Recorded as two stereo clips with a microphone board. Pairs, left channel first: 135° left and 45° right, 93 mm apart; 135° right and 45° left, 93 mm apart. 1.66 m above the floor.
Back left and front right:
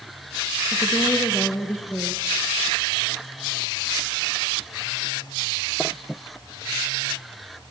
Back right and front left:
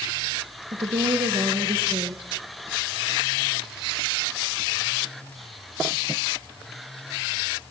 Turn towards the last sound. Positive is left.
turn(degrees=65)